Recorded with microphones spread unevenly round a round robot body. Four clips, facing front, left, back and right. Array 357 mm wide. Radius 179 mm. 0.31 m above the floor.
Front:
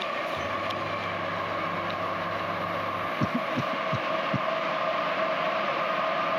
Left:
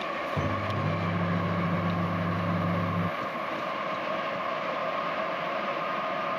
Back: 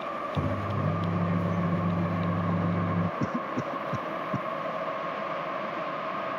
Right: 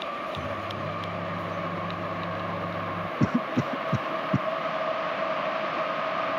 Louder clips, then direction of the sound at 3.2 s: Right 6 dB, front 2 dB; 80° right.